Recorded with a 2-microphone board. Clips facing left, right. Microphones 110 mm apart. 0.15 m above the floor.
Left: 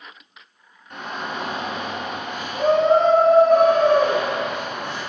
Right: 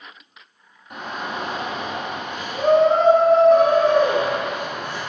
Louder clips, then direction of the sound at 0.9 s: Right 1 dB; 10° right (ahead or behind).